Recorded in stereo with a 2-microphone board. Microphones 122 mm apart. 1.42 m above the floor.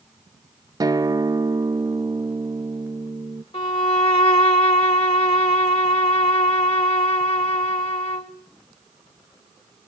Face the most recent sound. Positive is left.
turn(degrees=50)  # may be behind; listen again after turning